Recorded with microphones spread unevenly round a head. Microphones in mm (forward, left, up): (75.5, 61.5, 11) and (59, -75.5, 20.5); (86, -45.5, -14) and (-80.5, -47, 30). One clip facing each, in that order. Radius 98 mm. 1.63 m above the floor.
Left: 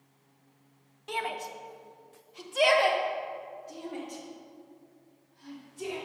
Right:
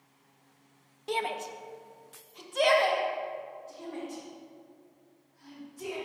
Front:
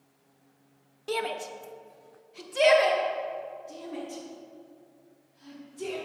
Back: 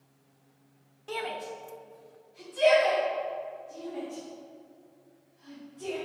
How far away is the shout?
About 1.2 m.